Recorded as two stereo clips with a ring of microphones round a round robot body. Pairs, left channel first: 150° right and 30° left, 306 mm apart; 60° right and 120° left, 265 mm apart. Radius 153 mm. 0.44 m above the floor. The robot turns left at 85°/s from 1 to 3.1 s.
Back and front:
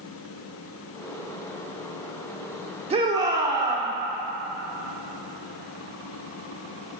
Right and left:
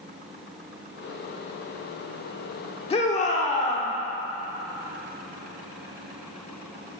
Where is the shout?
20° right, 0.9 m; by 3.9 s 35° right, 0.9 m.